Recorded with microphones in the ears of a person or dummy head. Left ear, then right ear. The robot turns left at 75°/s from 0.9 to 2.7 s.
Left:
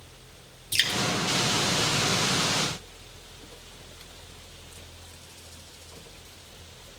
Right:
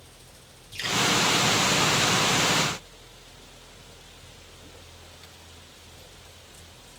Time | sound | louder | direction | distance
0.7 | dripping | left 3 dB | 55° left (ahead or behind) | 1.6 m